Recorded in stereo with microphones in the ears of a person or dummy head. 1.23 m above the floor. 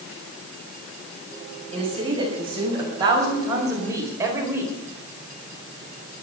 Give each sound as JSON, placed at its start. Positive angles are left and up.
{"t": 1.7, "sound": "a woman speaking", "side_deg": -30, "distance_m": 6.5}